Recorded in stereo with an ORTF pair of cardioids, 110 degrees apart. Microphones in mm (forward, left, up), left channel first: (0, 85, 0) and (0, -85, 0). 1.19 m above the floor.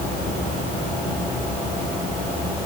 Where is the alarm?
I don't hear an alarm.